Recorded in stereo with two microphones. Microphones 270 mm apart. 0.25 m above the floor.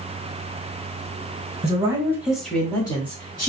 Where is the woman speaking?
25° right (ahead or behind), 1.2 m; by 3.5 s 30° left (ahead or behind), 1.3 m.